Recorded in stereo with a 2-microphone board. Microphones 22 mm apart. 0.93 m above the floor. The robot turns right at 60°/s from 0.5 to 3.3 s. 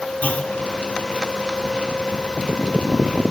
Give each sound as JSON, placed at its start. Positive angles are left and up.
{"t": 0.2, "sound": "a clunk", "side_deg": 80, "distance_m": 2.0}